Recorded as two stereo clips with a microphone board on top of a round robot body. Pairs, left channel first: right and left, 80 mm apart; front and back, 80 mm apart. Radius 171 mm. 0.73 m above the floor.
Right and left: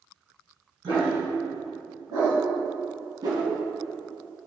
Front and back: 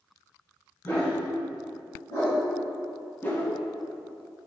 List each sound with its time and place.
0.8 s a dog barking: 60° left, 2 m; by 2.4 s 45° left, 3 m
3.2 s a whoosh: 65° left, 1.6 m